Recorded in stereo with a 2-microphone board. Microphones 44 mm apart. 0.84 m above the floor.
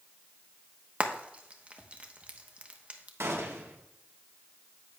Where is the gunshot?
75° right (ahead or behind), 1.3 m.